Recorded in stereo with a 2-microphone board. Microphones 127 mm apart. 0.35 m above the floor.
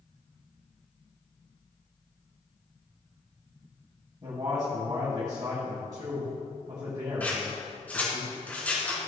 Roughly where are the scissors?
Centre.